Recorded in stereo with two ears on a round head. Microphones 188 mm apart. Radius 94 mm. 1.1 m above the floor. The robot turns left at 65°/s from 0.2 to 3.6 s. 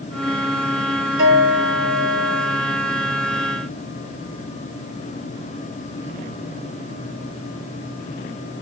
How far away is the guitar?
About 4.5 m.